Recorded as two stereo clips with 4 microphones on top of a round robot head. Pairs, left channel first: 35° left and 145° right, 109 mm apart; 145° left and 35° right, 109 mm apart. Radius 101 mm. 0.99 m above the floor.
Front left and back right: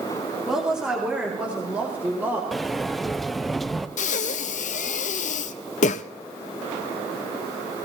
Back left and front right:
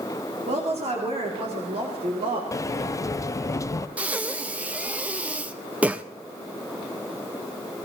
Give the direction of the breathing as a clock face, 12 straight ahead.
11 o'clock.